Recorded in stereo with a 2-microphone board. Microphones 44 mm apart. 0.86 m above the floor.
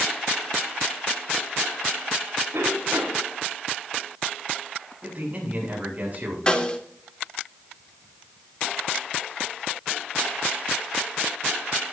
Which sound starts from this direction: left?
A snare drum, at 6.5 s.